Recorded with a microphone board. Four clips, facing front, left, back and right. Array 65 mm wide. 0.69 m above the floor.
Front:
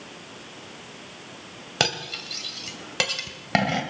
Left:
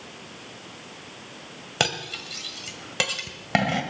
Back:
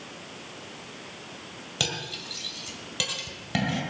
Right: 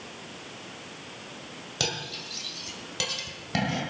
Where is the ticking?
I don't hear ticking.